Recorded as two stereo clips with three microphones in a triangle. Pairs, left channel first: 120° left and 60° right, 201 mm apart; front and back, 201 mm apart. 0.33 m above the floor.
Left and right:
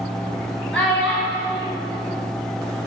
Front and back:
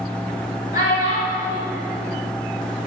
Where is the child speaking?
35° left, 1.4 m.